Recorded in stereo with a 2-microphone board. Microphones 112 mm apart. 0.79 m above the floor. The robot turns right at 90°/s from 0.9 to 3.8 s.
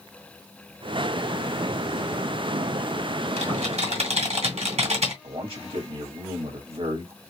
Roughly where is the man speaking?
Right.